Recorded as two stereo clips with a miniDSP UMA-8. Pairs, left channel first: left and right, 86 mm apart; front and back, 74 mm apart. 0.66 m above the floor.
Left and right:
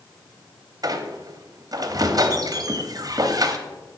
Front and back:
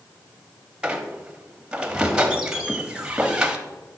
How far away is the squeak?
About 0.8 m.